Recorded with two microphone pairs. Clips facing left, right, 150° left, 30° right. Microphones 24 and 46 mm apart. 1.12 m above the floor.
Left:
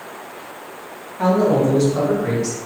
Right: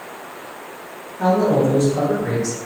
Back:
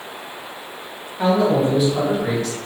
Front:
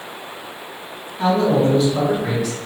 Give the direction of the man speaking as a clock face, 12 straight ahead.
9 o'clock.